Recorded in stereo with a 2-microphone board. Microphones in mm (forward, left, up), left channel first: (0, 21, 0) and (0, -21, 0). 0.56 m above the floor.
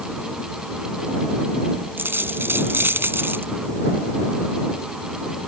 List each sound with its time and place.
2.0 s a dropped coin: 65° right (ahead or behind)